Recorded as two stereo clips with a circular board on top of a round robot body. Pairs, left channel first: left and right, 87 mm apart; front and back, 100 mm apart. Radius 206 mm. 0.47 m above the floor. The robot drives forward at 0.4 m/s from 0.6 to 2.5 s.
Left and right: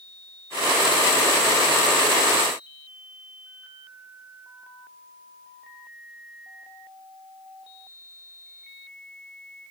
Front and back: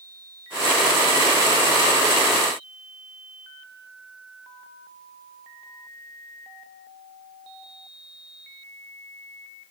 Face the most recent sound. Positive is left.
No sound to turn to.